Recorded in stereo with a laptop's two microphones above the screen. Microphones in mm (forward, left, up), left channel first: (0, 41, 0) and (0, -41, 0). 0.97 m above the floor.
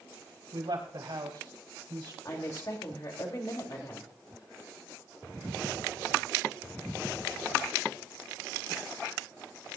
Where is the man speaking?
80° right, 5 m; by 2.1 s 70° right (ahead or behind), 3.5 m.